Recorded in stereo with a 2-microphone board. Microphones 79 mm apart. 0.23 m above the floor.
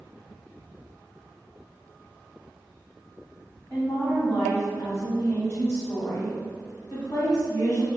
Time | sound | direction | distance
3.7 | a woman speaking | 20° left (ahead or behind) | 1.2 m